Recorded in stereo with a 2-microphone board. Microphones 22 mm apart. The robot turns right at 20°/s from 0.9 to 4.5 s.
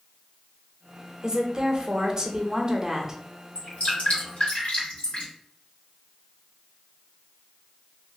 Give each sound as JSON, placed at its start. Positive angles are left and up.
{"t": 1.2, "sound": "a woman speaking", "azimuth_deg": -85, "distance_m": 0.6}
{"t": 3.5, "sound": "dripping", "side_deg": 70, "distance_m": 1.6}